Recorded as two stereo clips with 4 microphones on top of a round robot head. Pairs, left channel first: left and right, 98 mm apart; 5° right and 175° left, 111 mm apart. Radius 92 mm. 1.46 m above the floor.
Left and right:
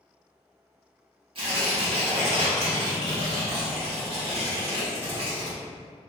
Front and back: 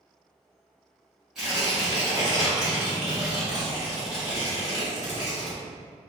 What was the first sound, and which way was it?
Tearing paper, 100° right.